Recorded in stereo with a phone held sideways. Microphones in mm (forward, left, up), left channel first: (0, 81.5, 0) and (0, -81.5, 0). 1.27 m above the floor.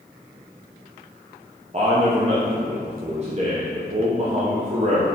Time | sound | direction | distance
1.7 | a man speaking | 45° right (ahead or behind) | 0.9 m